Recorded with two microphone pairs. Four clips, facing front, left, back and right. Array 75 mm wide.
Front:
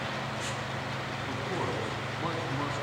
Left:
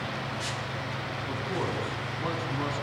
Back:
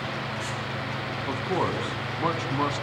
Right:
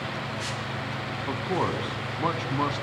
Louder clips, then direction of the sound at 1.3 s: Right 5 dB, back 7 dB; 140° right.